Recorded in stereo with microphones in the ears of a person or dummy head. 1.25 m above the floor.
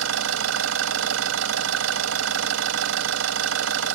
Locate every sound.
0.0 s an engine running: 85° right